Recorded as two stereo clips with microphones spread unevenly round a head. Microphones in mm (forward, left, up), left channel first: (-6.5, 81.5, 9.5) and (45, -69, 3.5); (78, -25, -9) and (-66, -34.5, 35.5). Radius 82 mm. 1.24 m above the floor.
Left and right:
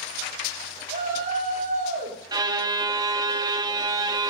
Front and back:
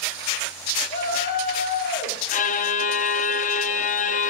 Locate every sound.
0.9 s a shout: 30° right, 3 m
2.3 s a violin: 5° right, 1.3 m